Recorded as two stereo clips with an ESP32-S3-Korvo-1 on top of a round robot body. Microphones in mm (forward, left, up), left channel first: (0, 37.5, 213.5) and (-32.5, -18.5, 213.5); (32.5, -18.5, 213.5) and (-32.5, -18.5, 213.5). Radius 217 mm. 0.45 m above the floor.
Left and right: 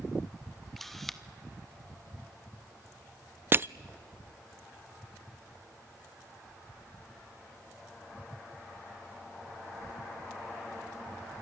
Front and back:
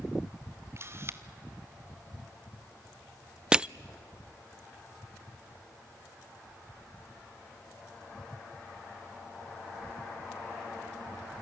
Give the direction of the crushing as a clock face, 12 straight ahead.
4 o'clock.